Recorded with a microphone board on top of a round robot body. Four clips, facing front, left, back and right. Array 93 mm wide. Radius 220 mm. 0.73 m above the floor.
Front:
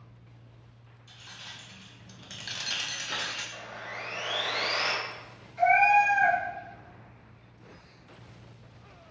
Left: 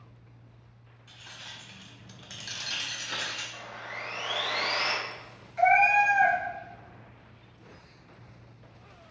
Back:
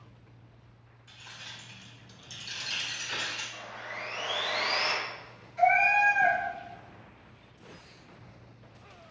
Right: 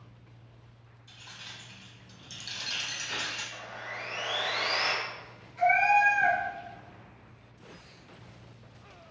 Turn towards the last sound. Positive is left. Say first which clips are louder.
# left 2 dB, front 2 dB
turn(degrees=95)